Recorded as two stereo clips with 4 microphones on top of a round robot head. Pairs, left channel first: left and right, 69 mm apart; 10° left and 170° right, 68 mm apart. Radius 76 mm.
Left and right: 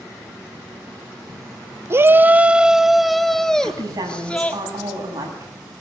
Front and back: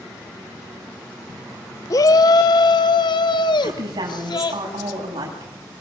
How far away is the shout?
About 0.9 m.